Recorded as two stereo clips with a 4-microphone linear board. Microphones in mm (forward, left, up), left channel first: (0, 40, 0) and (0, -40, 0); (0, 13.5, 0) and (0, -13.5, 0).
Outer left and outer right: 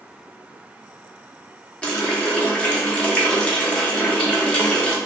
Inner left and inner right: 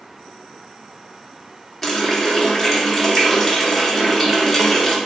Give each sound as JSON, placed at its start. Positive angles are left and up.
{"t": 1.8, "sound": "a running tap", "side_deg": 15, "distance_m": 0.8}